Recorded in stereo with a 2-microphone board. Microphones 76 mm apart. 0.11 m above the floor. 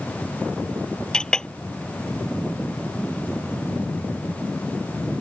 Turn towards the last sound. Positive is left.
turn(degrees=10)  # may be behind; listen again after turning